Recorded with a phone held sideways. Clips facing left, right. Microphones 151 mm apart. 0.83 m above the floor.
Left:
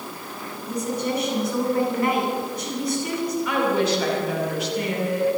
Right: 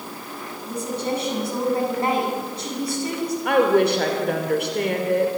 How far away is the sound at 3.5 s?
About 2.5 m.